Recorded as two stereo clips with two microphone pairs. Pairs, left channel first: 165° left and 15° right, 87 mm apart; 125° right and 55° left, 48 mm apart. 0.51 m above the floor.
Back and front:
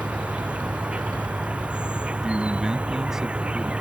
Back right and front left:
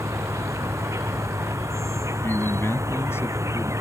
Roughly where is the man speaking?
Right.